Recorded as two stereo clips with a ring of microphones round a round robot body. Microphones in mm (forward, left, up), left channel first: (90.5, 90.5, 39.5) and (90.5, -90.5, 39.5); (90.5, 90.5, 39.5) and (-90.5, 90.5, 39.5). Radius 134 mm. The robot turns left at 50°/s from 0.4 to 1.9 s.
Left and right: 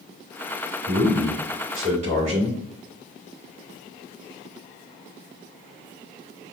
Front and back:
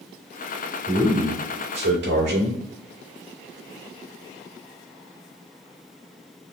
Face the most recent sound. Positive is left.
turn(degrees=-150)